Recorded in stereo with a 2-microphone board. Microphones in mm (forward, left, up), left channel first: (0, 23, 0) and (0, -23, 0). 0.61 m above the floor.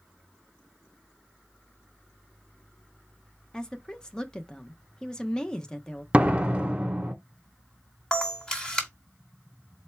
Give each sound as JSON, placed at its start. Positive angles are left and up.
{"t": 3.5, "sound": "a woman speaking", "side_deg": 20, "distance_m": 0.7}
{"t": 6.1, "sound": "a door slam", "side_deg": -25, "distance_m": 0.7}
{"t": 8.1, "sound": "a camera shutter", "side_deg": 20, "distance_m": 1.5}